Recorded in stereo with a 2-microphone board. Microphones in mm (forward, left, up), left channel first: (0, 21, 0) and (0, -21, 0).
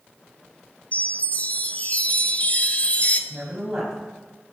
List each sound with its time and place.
0.9 s a chime: 40° left (ahead or behind), 0.9 m
3.3 s a woman speaking: 20° right (ahead or behind), 4 m